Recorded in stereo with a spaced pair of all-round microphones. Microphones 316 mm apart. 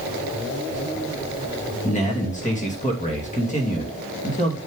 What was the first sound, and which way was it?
A man speaking, 20° left (ahead or behind).